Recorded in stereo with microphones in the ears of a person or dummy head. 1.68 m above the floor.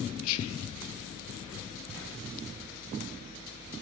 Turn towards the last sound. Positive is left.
turn(degrees=75)  # may be behind; listen again after turning